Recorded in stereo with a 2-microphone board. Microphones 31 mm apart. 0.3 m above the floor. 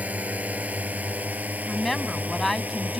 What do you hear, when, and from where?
0.0 s a drone: 60° right (ahead or behind); by 3.0 s 65° right (ahead or behind)
1.7 s a woman speaking: 5° left (ahead or behind)